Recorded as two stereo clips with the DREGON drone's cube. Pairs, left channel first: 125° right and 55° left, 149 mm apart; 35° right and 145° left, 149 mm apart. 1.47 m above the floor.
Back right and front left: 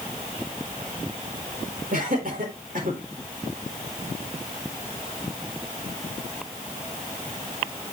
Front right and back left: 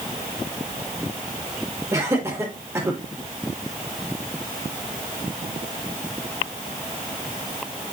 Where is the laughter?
75° left, 6.5 m.